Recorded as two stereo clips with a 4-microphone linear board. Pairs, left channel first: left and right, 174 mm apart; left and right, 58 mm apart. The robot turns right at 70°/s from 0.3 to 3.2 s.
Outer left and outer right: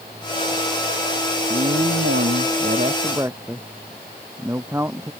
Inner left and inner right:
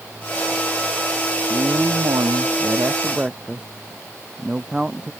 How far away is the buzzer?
I don't hear a buzzer.